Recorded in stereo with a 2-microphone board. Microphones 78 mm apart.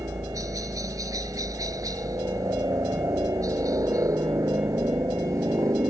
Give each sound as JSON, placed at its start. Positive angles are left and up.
{"t": 0.0, "sound": "a helicopter", "side_deg": -50}